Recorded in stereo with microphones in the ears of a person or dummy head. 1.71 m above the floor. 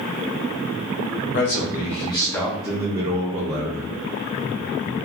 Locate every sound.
1.3 s a man speaking: 50° left (ahead or behind), 0.9 m; by 3.9 s 40° right (ahead or behind), 1.1 m